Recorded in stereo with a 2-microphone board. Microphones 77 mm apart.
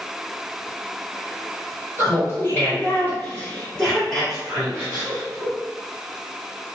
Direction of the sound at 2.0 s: 40° left (ahead or behind).